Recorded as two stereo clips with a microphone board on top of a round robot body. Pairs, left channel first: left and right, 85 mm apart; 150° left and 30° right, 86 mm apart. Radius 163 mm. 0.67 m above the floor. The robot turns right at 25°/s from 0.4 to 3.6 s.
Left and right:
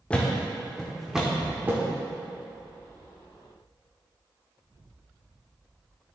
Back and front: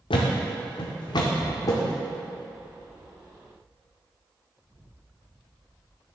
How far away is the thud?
About 0.5 m.